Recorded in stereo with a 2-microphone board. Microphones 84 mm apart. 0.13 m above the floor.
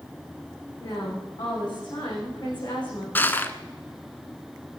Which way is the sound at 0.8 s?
65° left (ahead or behind).